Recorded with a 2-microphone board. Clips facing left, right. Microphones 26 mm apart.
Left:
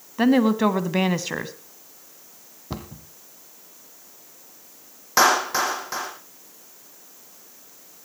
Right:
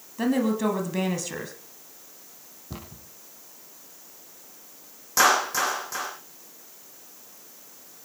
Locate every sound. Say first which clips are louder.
0.2 s a woman speaking: left 6 dB; 30° left (ahead or behind), 1.6 m
2.7 s a cupboard door: left 6 dB; 40° left (ahead or behind), 2.5 m
5.2 s a clap: left 2 dB; 35° left (ahead or behind), 7.5 m